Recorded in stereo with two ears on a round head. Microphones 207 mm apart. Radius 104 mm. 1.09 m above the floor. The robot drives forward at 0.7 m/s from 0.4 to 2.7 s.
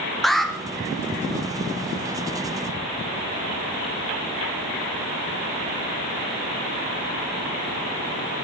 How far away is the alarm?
About 1.4 m.